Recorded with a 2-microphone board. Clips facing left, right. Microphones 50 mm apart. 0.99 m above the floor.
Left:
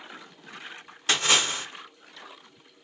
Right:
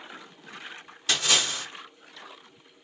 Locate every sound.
1.1 s a splash: 40° left (ahead or behind), 1.4 m